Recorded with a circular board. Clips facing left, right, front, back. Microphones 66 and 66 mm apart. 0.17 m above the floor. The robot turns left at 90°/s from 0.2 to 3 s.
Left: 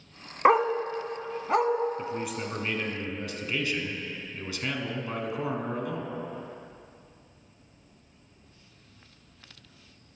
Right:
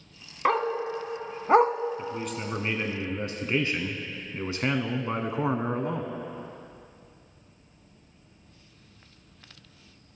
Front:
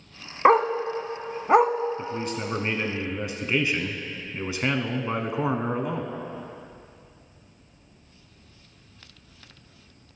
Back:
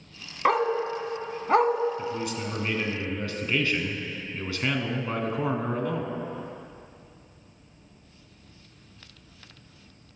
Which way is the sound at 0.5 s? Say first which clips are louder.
Left 4 dB, front 5 dB; 40° left.